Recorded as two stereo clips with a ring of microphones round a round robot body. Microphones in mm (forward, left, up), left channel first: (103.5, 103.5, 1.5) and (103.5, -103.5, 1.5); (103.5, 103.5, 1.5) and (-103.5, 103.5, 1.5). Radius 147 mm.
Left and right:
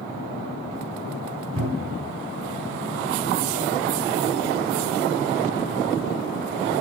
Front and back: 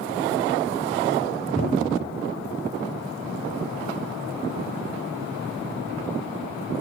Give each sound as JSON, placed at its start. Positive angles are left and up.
{"t": 1.6, "sound": "a cupboard door", "azimuth_deg": -125, "distance_m": 5.0}